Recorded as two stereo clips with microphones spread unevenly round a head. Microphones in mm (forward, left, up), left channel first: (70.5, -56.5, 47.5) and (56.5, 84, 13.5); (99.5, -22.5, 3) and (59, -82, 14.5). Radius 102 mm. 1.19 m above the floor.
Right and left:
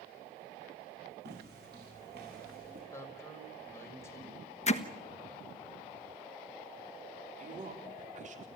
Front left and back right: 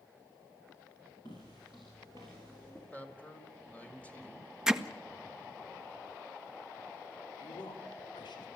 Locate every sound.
1.2 s footsteps: 125° left, 5 m; by 2.8 s 135° left, 6 m
2.9 s a man speaking: 15° right, 5 m
4.7 s hammering: 40° right, 1.4 m
7.4 s a man speaking: 70° left, 4 m